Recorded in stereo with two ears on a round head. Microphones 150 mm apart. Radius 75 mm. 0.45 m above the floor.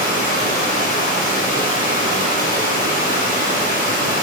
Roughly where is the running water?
Left.